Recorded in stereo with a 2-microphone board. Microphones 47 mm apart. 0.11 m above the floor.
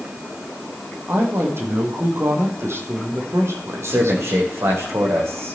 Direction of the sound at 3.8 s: 80° right.